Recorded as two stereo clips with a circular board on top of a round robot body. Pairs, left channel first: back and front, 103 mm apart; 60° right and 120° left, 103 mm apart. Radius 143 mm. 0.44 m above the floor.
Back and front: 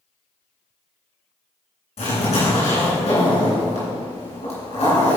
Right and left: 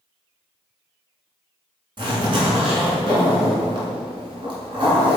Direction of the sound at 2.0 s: 165° left.